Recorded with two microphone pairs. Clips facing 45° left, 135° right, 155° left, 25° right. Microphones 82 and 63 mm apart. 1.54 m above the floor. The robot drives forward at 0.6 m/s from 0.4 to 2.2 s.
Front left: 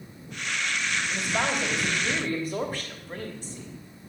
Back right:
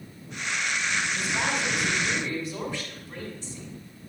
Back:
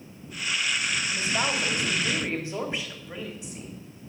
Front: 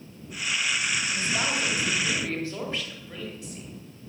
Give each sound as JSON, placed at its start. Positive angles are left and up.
{"t": 1.1, "sound": "a woman speaking", "azimuth_deg": 75, "distance_m": 3.0}